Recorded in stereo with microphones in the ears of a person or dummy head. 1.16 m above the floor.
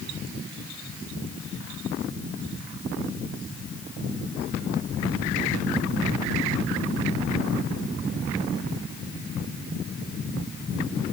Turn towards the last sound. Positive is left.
No sound to turn to.